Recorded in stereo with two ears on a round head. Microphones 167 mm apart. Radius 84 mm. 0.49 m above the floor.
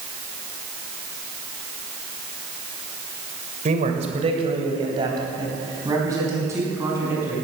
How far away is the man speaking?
About 2.5 m.